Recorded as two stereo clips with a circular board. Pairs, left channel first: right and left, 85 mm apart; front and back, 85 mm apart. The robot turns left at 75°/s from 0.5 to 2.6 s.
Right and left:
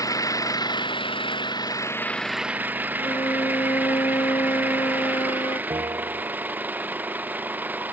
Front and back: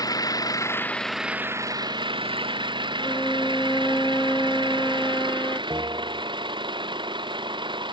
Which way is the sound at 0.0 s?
45° right.